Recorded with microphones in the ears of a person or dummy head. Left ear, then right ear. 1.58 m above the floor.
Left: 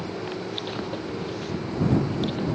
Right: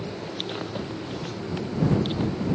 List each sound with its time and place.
Only background noise.